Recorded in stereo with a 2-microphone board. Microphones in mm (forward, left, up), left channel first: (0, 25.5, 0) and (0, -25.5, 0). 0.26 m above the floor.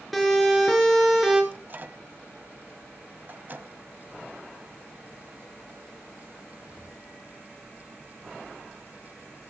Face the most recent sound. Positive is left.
turn(degrees=-40)  # may be behind; listen again after turning